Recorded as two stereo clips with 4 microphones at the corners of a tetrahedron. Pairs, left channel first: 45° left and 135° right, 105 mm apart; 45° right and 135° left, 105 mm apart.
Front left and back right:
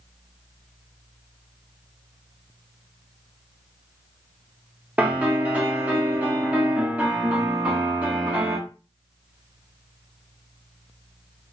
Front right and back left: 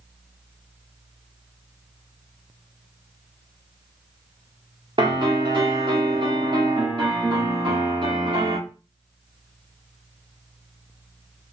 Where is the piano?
150° left, 1.5 m.